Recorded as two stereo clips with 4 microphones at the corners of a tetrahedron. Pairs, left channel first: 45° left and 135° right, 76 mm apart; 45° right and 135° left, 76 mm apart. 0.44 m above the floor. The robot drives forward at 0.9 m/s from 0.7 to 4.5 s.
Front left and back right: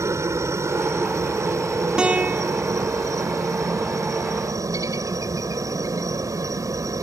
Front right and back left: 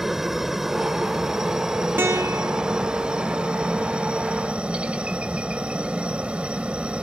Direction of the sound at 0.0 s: 145° right.